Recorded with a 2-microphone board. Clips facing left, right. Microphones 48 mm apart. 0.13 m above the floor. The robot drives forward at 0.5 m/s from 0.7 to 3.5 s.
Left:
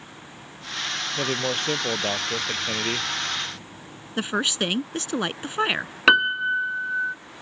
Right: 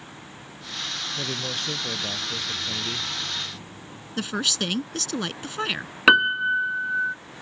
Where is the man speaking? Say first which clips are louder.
Left 7 dB; 40° left (ahead or behind); by 3.1 s 50° left (ahead or behind).